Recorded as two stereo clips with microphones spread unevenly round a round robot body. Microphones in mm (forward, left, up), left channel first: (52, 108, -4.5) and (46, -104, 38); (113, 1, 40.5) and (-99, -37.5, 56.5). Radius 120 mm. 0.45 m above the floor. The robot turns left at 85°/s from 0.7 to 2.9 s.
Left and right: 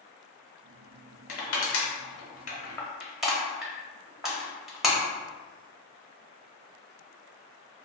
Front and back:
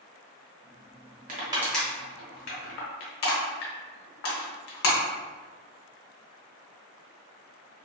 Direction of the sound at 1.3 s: 135° left.